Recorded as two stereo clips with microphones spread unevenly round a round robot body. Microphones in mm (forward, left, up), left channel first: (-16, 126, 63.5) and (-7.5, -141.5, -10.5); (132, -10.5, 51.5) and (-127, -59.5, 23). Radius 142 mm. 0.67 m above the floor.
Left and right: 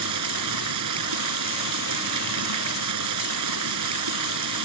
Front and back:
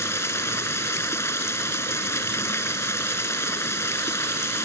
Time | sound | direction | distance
0.0 | running water | 70° right | ?